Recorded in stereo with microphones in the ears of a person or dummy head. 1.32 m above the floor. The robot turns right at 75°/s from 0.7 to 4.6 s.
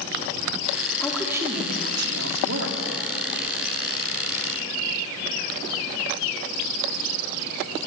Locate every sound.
1.0 s a woman speaking: 165° left, 3.5 m; by 2.8 s 60° right, 3.5 m